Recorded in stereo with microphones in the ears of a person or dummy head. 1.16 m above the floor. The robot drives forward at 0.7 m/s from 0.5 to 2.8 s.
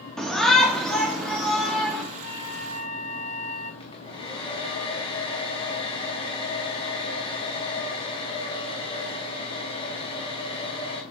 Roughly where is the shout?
Centre.